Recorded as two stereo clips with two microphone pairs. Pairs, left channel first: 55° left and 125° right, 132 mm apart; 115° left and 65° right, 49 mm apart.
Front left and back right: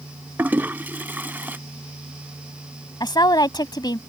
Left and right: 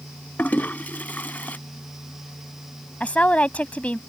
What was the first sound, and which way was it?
A toilet flushing, 160° left.